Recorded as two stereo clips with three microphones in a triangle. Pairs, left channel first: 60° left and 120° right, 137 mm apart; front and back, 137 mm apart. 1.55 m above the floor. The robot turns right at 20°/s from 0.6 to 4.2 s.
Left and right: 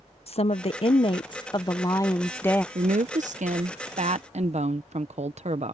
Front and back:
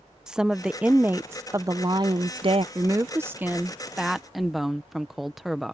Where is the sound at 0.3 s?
95° left; by 2.6 s 135° left.